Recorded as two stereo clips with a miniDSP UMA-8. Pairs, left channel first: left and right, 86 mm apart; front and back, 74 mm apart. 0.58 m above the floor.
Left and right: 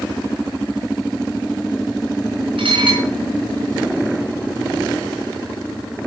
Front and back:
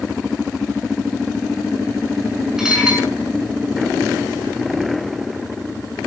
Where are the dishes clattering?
100° right, 4.5 m.